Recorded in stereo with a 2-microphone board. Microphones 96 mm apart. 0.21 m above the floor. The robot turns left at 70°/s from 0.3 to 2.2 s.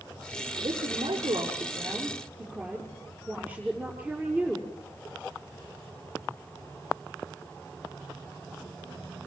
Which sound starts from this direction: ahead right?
A woman speaking, at 0.6 s.